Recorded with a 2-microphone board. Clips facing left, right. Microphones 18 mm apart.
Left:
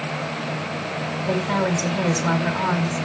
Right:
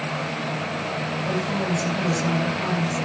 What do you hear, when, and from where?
1.3 s a woman speaking: 55° left (ahead or behind), 2 m